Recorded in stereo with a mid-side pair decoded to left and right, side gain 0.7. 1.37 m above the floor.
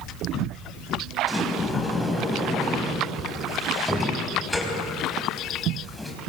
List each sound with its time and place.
1.3 s a sliding door: 5° left, 4.5 m